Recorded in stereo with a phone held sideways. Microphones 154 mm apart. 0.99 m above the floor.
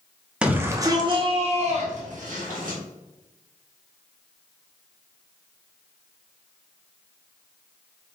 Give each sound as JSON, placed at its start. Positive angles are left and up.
{"t": 0.4, "sound": "a shout", "side_deg": -5, "distance_m": 0.8}